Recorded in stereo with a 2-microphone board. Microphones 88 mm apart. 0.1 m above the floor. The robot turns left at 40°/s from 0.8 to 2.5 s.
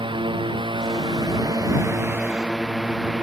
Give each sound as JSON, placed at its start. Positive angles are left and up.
{"t": 0.0, "sound": "a drone", "azimuth_deg": -100}